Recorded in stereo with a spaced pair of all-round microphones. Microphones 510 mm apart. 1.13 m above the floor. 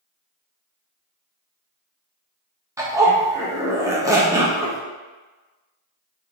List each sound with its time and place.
2.8 s a zipper: 5° right (ahead or behind), 0.7 m